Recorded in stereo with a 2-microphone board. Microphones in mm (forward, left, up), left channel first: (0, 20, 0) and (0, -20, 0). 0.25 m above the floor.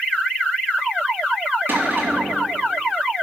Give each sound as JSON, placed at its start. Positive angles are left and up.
{"t": 1.7, "sound": "a cupboard door", "side_deg": -45, "distance_m": 6.0}